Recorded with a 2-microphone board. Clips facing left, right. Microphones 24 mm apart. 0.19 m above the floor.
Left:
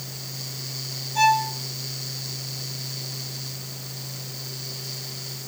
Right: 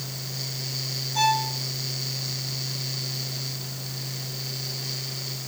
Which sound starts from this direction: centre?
A violin, at 1.1 s.